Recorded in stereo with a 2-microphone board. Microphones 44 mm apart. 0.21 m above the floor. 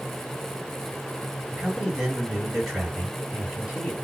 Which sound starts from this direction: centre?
A man speaking, at 1.5 s.